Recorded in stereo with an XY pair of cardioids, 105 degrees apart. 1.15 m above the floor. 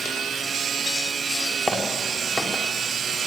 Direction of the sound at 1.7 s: 10° left.